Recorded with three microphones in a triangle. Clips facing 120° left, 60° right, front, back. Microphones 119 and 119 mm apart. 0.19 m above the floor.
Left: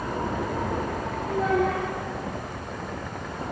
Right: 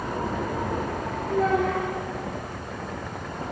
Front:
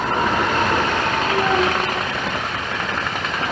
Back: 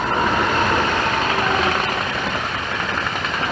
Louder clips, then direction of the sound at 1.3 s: Right 1 dB, front 1 dB; 45° left.